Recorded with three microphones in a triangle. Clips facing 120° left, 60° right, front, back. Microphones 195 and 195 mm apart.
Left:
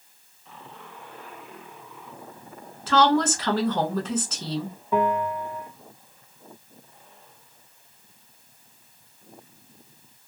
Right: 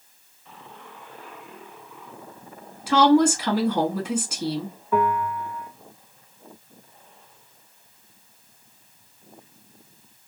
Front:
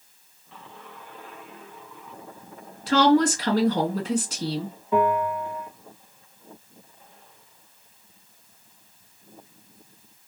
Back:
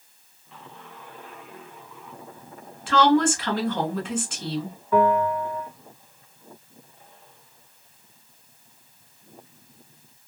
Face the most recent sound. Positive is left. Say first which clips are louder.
# even, back 2 dB
turn(degrees=55)